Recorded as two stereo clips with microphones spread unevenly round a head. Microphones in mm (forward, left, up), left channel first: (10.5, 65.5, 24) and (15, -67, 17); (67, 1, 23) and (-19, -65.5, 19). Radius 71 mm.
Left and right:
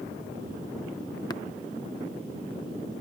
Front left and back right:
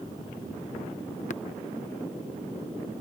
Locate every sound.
1.3 s tapping: 30° left